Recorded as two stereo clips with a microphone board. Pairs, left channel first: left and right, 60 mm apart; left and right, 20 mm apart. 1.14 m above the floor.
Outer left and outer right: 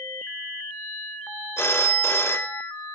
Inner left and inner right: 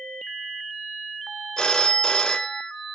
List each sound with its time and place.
1.6 s a phone ringing: 45° left (ahead or behind), 1.4 m